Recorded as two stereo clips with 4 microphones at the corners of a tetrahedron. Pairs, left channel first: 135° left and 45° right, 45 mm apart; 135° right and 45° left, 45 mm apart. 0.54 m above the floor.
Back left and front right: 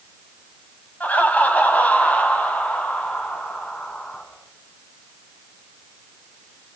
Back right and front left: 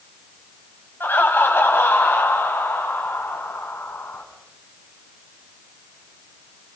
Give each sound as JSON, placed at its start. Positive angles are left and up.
{"t": 1.0, "sound": "laughter", "azimuth_deg": -175, "distance_m": 3.5}